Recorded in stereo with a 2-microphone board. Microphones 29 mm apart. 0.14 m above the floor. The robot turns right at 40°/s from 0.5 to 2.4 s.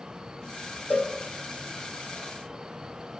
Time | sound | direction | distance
0.9 | a cowbell | 80° left | 5.5 m